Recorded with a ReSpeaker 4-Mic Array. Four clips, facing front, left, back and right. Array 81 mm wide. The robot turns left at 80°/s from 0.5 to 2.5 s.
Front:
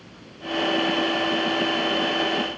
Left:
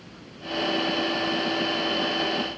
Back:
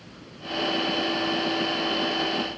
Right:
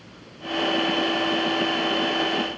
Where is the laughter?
No laughter in this recording.